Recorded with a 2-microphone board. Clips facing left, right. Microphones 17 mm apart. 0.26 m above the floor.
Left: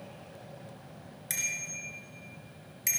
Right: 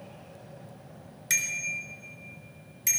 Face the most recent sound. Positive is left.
turn(degrees=15)  # may be behind; listen again after turning